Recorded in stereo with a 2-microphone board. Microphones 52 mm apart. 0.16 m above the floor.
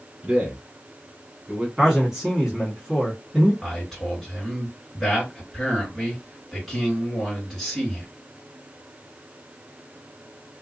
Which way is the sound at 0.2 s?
20° right (ahead or behind).